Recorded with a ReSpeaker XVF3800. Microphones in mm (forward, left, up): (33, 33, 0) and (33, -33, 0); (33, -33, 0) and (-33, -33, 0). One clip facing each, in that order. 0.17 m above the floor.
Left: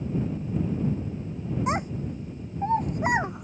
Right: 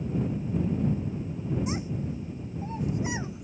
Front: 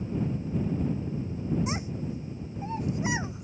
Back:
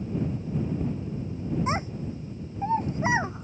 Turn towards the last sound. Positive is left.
turn(degrees=125)